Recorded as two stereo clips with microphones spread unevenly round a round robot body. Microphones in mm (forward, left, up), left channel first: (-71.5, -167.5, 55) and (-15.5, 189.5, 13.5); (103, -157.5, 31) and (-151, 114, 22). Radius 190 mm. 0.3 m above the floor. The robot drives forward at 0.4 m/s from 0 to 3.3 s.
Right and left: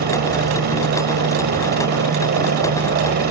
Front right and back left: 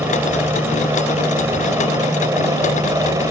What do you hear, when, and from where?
0.0 s a helicopter: 55° left